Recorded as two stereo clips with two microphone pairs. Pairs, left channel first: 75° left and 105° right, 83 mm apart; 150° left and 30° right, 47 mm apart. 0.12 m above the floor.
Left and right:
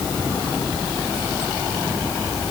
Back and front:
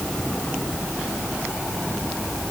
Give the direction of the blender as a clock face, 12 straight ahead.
No blender in this recording.